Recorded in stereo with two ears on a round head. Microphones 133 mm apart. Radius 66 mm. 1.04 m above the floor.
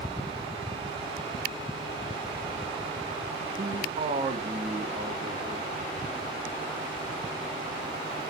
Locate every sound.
3.6 s a man speaking: 45° right (ahead or behind), 0.6 m; by 5.7 s 40° right (ahead or behind), 2 m